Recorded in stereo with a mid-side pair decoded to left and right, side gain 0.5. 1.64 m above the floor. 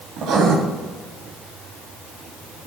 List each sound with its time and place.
0.2 s writing: 65° right, 3 m